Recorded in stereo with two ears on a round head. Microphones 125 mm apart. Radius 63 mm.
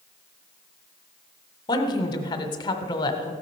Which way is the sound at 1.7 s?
30° left (ahead or behind).